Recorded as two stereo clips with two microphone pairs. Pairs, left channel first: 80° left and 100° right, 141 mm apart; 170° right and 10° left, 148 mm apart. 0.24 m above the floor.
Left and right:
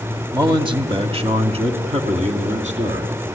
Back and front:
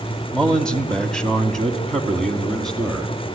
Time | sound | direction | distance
0.3 | a man speaking | 90° right | 1.8 m